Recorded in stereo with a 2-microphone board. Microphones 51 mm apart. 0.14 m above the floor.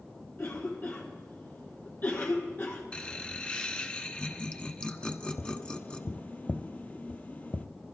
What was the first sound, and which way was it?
A cough, 45° left (ahead or behind).